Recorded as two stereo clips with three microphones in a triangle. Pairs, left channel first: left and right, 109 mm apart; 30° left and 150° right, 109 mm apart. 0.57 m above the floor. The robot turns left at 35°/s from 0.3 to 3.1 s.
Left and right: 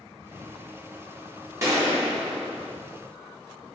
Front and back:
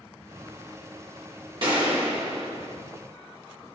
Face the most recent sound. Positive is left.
turn(degrees=165)